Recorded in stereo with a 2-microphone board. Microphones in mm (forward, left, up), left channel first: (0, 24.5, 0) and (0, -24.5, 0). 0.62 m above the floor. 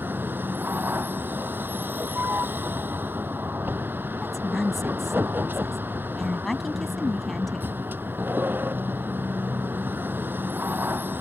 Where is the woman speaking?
5° left (ahead or behind).